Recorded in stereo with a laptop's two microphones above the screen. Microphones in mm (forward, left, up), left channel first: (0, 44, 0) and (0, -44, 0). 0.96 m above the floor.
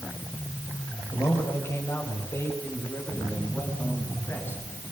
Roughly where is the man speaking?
Left.